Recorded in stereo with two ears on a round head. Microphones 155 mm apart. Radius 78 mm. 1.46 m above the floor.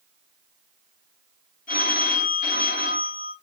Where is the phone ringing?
50° left (ahead or behind), 3.5 m.